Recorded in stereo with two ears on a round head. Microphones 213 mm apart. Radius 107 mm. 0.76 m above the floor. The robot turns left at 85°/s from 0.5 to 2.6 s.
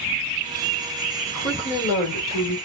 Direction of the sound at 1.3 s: 175° left.